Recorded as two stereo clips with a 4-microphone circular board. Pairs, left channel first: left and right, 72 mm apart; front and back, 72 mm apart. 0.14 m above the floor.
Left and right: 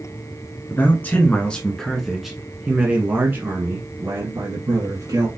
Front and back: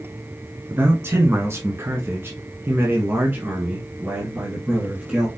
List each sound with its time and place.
0.7 s a man speaking: 140° left, 1.4 m; by 5.3 s 110° right, 2.0 m